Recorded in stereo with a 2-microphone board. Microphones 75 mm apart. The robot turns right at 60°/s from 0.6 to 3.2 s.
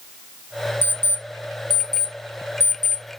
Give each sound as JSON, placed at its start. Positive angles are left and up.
{"t": 0.8, "sound": "an alarm clock", "side_deg": -25, "distance_m": 0.8}